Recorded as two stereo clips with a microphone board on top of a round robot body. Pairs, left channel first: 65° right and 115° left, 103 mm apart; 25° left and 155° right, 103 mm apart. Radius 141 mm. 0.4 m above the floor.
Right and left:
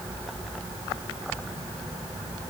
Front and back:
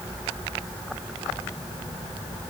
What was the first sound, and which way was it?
Only background noise.